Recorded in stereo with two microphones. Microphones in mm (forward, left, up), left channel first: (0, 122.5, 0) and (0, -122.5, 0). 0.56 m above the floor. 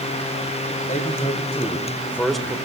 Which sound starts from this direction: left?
A man speaking, at 0.9 s.